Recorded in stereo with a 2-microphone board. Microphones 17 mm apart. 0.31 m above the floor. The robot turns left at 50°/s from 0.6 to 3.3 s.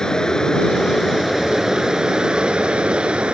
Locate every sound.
0.0 s running water: 40° left; by 3.4 s 95° right